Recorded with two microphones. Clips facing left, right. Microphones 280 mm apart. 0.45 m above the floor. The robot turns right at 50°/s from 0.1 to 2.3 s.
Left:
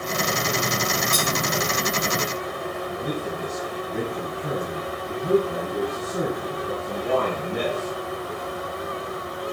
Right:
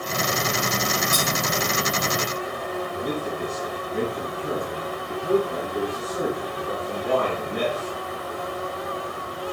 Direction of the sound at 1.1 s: Centre (ahead or behind).